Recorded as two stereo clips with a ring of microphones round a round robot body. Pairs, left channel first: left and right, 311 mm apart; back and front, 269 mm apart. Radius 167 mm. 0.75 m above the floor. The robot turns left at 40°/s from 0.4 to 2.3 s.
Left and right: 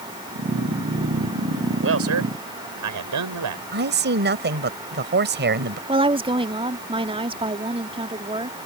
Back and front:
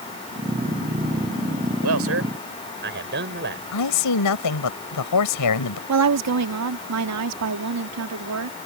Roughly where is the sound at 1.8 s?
Ahead right.